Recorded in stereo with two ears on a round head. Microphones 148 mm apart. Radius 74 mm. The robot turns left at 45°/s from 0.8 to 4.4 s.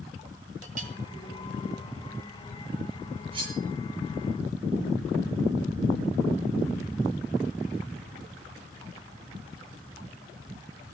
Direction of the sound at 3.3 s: 35° right (ahead or behind).